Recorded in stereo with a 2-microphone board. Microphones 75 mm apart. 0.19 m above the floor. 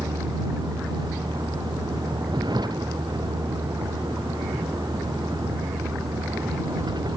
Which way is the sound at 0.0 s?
80° right.